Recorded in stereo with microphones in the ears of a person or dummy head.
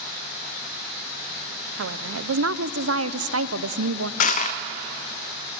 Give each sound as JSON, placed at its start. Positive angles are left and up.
{"t": 1.8, "sound": "a woman speaking", "side_deg": -75, "distance_m": 0.6}
{"t": 4.2, "sound": "crushing", "side_deg": 50, "distance_m": 1.0}